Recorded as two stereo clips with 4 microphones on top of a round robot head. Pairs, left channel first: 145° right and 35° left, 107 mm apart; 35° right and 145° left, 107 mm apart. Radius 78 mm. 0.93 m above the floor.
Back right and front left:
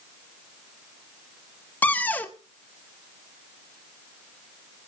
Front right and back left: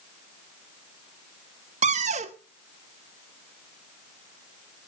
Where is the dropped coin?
I don't hear a dropped coin.